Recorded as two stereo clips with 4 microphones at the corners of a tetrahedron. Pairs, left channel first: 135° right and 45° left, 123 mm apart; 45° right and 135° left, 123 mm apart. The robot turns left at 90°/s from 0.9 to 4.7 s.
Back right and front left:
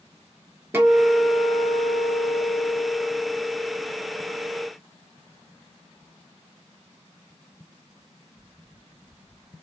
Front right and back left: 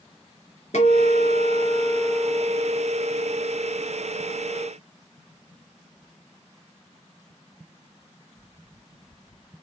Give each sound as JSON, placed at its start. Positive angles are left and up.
{"t": 0.7, "sound": "a guitar", "azimuth_deg": -30, "distance_m": 3.0}